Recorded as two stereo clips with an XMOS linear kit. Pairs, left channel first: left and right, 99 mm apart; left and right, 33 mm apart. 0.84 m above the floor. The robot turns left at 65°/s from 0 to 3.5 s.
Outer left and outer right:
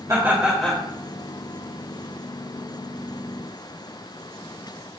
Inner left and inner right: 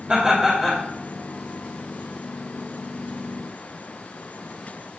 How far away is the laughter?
About 2 m.